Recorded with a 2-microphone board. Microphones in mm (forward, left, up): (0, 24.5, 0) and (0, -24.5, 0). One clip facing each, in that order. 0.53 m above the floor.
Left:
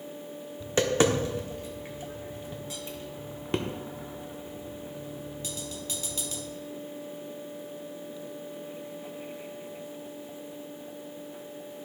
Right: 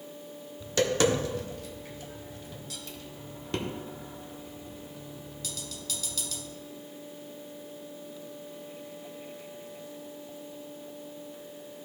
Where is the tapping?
25° left (ahead or behind), 0.9 m.